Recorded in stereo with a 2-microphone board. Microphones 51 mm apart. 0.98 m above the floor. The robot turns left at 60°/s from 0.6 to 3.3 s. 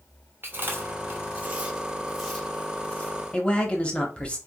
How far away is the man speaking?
About 0.8 m.